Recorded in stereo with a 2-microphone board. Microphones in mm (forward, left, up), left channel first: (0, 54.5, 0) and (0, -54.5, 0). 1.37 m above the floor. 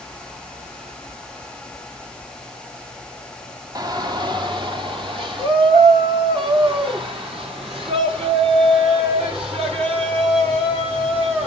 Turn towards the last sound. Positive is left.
turn(degrees=-60)  # may be behind; listen again after turning